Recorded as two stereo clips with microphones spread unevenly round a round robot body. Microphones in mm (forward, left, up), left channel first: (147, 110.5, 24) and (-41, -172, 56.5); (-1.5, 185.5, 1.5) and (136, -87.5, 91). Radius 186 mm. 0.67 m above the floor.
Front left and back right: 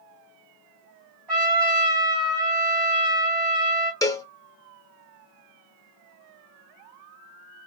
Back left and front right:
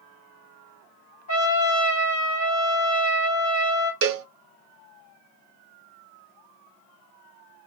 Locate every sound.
1.3 s a trumpet: 170° left, 1.9 m
4.0 s a cowbell: 25° right, 0.6 m